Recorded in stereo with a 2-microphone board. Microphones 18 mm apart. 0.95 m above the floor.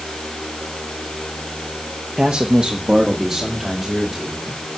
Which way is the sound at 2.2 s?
50° right (ahead or behind).